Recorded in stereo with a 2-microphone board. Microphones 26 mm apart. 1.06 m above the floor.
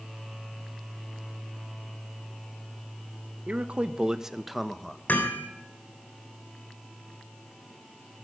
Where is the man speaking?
55° right (ahead or behind), 0.8 m; by 5.0 s 15° left (ahead or behind), 0.9 m.